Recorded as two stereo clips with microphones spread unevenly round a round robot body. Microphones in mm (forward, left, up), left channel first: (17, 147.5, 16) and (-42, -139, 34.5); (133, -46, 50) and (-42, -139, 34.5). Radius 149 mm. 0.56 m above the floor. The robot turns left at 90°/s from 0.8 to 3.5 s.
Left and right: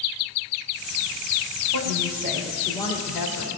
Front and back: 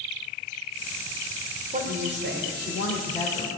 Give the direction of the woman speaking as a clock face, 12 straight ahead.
4 o'clock.